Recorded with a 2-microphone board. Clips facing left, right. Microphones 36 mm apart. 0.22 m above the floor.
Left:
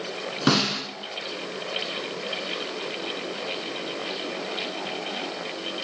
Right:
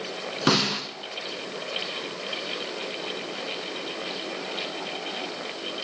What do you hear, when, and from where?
0.5 s a snare drum: centre (ahead or behind), 0.5 m